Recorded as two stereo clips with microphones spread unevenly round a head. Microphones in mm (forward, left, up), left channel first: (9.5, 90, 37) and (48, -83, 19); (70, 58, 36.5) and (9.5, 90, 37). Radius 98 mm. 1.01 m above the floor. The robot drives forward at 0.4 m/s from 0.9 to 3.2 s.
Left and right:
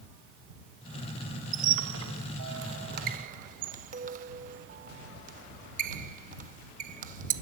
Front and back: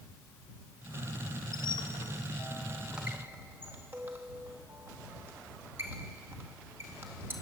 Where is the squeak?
60° right, 0.5 m; by 7.3 s 130° right, 0.6 m.